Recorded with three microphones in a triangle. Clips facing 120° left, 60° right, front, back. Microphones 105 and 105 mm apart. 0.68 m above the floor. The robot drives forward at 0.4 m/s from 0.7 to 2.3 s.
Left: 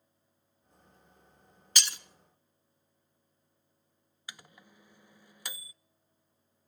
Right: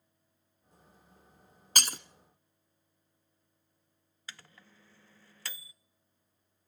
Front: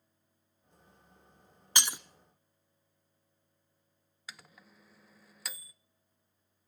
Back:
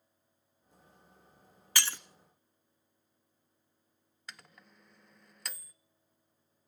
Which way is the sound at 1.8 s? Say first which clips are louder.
Right 3 dB, front 1 dB; 65° right.